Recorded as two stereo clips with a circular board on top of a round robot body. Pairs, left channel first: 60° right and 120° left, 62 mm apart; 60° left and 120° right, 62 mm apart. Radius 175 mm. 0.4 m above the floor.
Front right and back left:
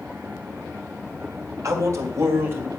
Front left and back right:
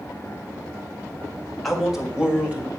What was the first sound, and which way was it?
A man speaking, 150° left.